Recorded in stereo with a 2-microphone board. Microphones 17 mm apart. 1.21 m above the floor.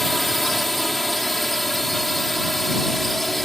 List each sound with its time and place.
0.0 s a drone: 20° left (ahead or behind)